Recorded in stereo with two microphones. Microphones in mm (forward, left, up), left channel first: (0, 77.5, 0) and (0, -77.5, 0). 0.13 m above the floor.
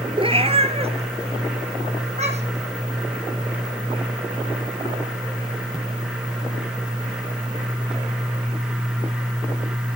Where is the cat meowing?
35° right (ahead or behind), 0.9 m; by 2.7 s 45° right (ahead or behind), 2.5 m.